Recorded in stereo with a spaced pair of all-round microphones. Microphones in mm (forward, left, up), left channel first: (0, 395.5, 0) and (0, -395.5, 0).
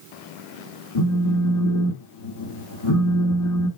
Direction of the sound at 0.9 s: 30° left (ahead or behind).